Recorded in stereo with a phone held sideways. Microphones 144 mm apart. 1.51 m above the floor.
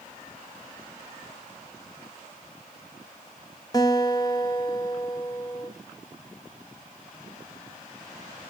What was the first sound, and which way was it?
A guitar, 25° left (ahead or behind).